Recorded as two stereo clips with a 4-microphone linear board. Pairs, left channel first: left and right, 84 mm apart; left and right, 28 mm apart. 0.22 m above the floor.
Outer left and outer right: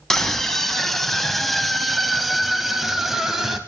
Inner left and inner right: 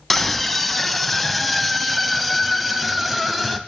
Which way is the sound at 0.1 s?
5° left (ahead or behind).